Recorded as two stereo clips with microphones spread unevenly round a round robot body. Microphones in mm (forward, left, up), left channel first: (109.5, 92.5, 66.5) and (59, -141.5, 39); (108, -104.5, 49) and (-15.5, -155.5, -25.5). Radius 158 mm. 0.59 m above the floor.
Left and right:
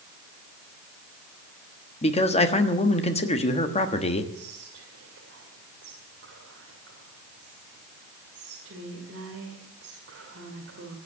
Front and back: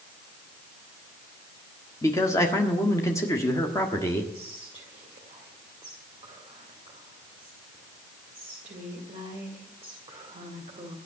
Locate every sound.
2.0 s a man speaking: 130° left, 1.3 m
4.3 s whispering: 145° right, 2 m